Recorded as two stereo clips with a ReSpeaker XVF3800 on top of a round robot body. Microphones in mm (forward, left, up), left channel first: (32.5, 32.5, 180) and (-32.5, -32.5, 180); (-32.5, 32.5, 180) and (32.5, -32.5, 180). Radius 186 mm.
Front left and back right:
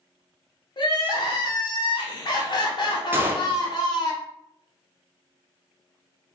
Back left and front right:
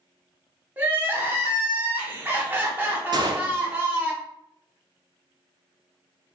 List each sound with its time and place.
0.8 s crying: 20° left, 0.9 m
3.1 s a gunshot: 70° right, 0.7 m